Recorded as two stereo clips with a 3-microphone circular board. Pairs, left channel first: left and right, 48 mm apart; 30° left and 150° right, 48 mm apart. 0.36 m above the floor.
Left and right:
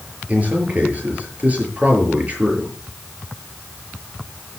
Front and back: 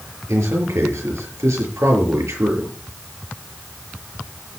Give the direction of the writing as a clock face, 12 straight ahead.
I don't hear writing.